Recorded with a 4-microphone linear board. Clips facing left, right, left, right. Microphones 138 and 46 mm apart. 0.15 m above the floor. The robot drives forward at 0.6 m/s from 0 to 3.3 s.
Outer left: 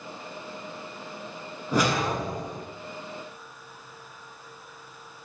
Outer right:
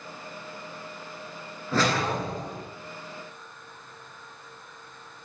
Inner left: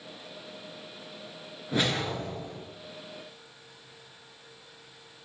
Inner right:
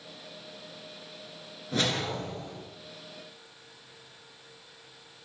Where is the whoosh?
15° left (ahead or behind), 2 m.